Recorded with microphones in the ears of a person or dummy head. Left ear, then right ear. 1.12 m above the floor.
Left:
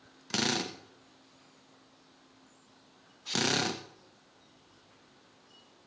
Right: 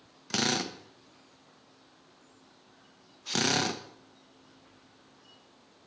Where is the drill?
5° left (ahead or behind), 1.3 m.